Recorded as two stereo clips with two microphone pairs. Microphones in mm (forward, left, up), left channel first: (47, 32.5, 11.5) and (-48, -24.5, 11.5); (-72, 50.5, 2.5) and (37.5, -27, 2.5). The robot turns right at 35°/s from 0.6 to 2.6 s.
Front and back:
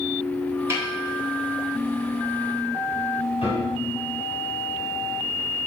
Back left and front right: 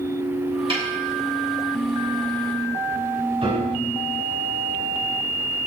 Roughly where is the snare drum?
Right.